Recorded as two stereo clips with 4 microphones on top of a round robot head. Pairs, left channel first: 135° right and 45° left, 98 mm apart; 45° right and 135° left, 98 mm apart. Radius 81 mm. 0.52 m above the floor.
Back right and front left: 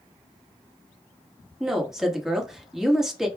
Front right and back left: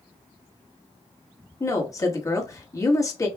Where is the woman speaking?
35° right, 1.4 m.